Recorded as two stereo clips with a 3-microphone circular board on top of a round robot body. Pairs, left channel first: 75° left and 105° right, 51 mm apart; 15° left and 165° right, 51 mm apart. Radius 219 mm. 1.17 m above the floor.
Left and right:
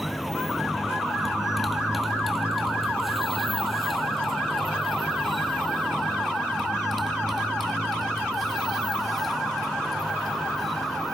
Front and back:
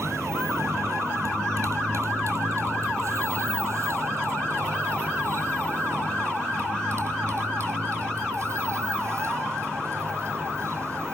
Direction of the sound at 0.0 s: 165° left.